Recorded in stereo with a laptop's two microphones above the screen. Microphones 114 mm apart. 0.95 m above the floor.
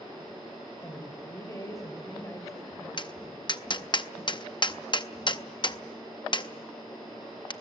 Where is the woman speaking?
30° left (ahead or behind), 3.5 m.